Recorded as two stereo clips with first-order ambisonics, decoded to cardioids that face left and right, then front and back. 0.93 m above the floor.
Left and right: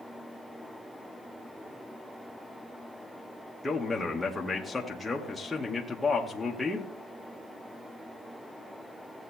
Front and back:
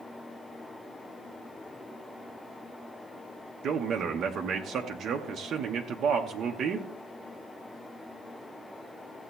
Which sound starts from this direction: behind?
A man speaking, at 3.6 s.